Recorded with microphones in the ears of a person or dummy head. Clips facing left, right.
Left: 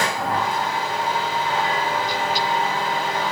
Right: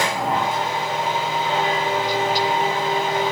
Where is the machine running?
15° right (ahead or behind), 2.5 m.